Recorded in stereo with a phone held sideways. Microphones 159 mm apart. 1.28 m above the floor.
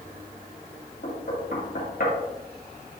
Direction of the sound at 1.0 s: 85° left.